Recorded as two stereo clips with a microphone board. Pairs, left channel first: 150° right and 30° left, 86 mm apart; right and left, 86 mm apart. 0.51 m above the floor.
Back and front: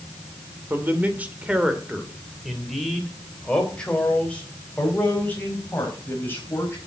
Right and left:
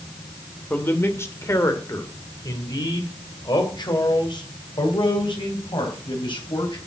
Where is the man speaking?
30° right, 2.0 m; by 6.8 s 90° right, 4 m.